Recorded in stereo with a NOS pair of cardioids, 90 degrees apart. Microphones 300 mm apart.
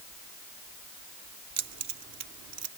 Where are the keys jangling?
60° right.